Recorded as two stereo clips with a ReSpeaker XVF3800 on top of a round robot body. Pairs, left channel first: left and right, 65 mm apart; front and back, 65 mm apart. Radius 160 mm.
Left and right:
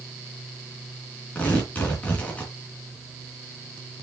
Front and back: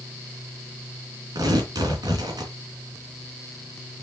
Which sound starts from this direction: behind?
Tearing paper, at 1.4 s.